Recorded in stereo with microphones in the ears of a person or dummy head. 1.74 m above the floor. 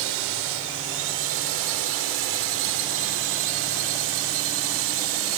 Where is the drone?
70° right (ahead or behind); by 5.4 s 75° right (ahead or behind).